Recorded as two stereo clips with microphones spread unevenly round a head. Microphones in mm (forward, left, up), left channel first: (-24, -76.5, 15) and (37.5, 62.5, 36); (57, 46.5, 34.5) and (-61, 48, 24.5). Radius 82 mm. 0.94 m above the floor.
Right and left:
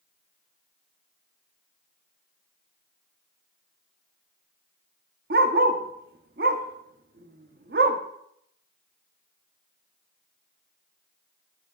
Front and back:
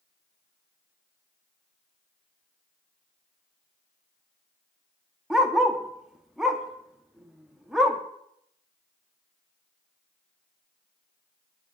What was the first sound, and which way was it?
A dog barking, 90° left.